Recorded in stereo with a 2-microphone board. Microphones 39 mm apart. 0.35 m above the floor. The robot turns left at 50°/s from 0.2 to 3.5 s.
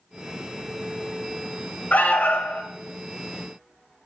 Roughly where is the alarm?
Behind left.